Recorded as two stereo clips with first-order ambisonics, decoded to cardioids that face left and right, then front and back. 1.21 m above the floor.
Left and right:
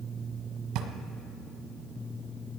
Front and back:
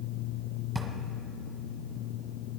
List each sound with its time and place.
0.8 s a drawer: 85° right, 1.6 m